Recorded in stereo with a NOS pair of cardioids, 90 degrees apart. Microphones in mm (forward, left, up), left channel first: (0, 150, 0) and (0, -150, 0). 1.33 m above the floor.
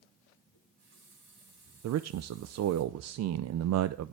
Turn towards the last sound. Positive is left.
turn(degrees=-60)